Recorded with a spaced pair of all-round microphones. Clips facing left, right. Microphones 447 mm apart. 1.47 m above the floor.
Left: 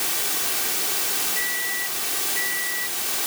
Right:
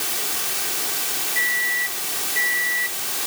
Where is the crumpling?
I don't hear crumpling.